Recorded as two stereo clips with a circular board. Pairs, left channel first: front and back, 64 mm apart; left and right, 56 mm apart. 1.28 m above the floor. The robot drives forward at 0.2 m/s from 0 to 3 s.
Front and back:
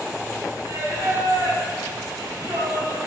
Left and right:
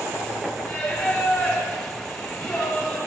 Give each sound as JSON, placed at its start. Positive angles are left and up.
{"t": 0.6, "sound": "singing", "azimuth_deg": 140, "distance_m": 7.5}